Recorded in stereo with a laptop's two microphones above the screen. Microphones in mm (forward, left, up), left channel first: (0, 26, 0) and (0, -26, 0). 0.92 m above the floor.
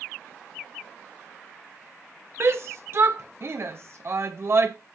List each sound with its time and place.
2.4 s a shout: 50° right (ahead or behind), 0.7 m